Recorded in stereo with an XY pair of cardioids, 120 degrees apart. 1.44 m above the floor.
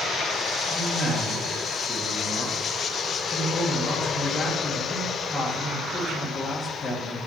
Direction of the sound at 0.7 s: 35° left.